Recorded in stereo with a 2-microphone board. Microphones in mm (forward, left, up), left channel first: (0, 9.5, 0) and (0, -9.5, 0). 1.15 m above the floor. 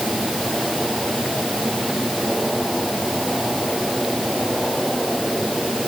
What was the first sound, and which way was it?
Only background noise.